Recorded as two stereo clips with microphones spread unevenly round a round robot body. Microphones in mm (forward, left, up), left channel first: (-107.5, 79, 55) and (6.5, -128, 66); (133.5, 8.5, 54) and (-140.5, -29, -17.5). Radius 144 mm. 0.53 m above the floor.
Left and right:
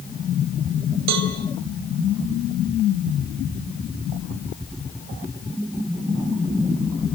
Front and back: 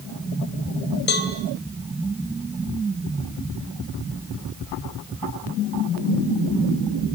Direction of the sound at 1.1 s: 50° right.